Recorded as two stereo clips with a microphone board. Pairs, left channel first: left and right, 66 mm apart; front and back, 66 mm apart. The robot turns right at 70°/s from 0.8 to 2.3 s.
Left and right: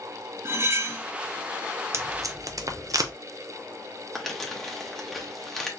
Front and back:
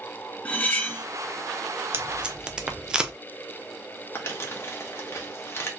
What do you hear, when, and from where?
0.5 s cutlery clinking: 60° right, 0.5 m; by 1.0 s 45° right, 0.5 m
1.9 s tape being pulled: 125° right, 0.5 m; by 3.1 s 100° right, 0.5 m
4.2 s crumpling: 5° left, 0.9 m